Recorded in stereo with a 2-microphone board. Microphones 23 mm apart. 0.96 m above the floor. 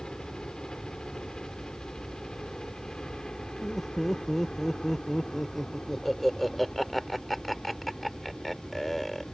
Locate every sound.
0.0 s a helicopter: 40° left (ahead or behind); by 9.3 s 25° left (ahead or behind)
3.6 s laughter: 5° left (ahead or behind)